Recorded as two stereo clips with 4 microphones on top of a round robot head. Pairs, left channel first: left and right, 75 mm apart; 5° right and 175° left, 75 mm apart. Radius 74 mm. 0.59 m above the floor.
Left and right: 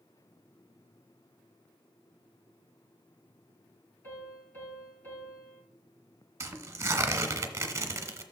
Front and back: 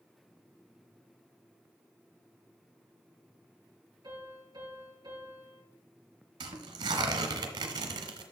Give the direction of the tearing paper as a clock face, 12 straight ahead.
5 o'clock.